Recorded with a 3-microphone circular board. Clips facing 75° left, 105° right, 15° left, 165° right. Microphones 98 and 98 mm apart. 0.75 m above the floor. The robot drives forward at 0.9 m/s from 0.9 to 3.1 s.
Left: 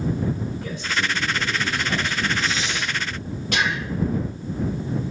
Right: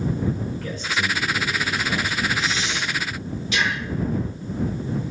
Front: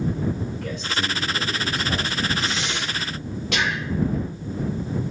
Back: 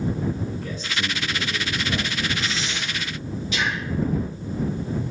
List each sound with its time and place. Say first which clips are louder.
0.6 s a man speaking: even, front 2 dB; 5° left, 4 m
2.4 s breathing: even, front 2 dB; 30° left, 3 m; by 3.9 s 40° left, 2.5 m